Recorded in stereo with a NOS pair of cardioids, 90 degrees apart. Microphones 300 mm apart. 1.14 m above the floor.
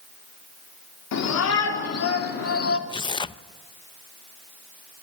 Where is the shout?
65° left, 3.5 m; by 2.8 s 45° left, 3 m.